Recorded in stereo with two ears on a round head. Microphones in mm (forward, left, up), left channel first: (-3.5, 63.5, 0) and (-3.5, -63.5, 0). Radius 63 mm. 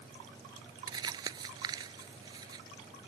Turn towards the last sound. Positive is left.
turn(degrees=-30)  # may be behind; listen again after turning